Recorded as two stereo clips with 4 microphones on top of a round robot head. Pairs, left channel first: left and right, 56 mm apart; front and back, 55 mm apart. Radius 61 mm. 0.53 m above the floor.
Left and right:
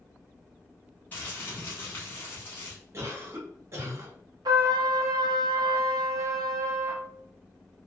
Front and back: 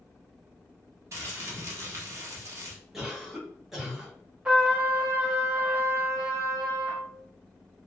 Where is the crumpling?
155° left, 0.7 m.